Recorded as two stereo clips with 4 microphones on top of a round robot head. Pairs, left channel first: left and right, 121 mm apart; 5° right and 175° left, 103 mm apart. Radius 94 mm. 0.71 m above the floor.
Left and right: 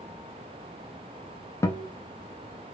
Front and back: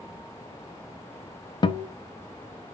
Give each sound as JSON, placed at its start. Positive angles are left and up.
{"t": 1.6, "sound": "a guitar", "azimuth_deg": 30, "distance_m": 0.5}